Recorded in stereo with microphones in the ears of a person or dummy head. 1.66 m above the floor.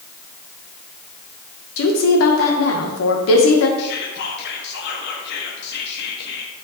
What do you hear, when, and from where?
1.8 s a woman speaking: 75° left (ahead or behind), 1.4 m
3.8 s whispering: 65° left (ahead or behind), 1.4 m